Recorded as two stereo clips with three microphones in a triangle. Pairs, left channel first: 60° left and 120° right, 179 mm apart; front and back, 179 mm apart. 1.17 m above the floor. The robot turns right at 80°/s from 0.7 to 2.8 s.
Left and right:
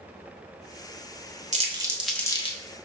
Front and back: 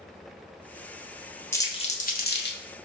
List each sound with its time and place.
1.5 s crumpling: 75° right, 0.6 m; by 2.6 s 10° left, 0.6 m